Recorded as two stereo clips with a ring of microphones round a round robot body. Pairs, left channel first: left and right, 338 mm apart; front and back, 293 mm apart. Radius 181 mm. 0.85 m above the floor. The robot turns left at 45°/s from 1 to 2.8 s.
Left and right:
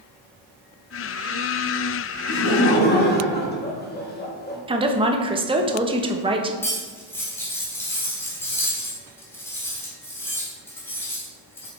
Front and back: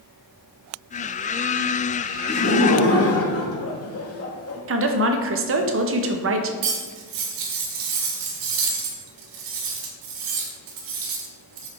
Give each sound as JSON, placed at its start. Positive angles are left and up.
{"t": 2.3, "sound": "laughter", "azimuth_deg": 55, "distance_m": 1.8}
{"t": 4.7, "sound": "a woman speaking", "azimuth_deg": -160, "distance_m": 0.9}
{"t": 6.6, "sound": "cutlery clinking", "azimuth_deg": 175, "distance_m": 1.2}